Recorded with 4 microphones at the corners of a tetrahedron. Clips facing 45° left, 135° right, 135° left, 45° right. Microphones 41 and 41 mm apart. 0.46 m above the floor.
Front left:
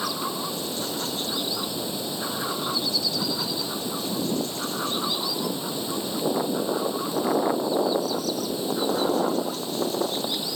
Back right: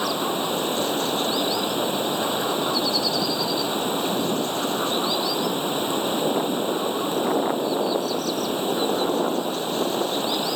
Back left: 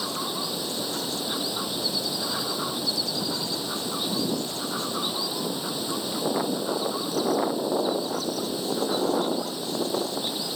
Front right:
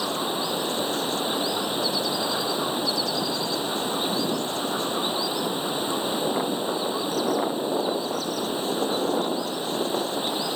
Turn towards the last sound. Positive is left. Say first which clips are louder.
# back right 5 dB, front right 4 dB
turn(degrees=-95)